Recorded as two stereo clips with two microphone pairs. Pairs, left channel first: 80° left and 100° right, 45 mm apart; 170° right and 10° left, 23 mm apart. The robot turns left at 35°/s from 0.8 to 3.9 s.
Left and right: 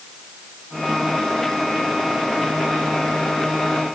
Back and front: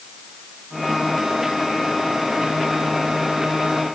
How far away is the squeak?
I don't hear a squeak.